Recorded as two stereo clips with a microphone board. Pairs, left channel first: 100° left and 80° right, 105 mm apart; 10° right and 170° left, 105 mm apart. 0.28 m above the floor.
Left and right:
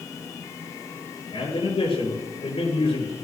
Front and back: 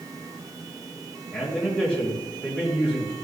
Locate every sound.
1.3 s a man speaking: 80° left, 4.5 m